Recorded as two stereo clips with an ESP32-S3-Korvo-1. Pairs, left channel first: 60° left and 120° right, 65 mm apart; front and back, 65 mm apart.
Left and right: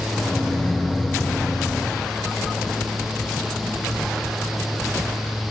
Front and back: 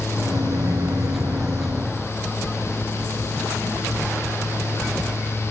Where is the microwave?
140° left, 0.7 m.